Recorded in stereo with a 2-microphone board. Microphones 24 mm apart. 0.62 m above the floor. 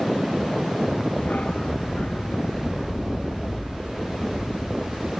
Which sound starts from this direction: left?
A dog barking, at 1.2 s.